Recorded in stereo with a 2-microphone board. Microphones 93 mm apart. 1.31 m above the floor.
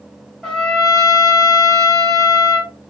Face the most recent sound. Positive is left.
turn(degrees=5)  # may be behind; listen again after turning